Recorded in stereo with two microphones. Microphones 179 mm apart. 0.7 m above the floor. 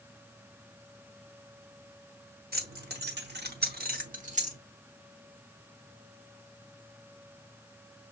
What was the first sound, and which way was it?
Keys jangling, 65° right (ahead or behind).